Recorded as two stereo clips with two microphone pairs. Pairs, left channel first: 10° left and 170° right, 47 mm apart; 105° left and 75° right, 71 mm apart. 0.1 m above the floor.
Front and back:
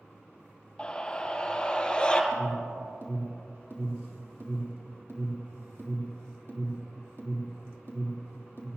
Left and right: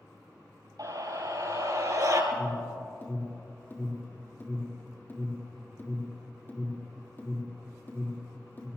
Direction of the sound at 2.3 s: 165° left.